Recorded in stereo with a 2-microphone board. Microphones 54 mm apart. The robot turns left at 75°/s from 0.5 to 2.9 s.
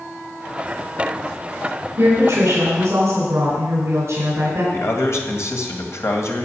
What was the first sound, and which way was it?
A woman speaking, 60° right.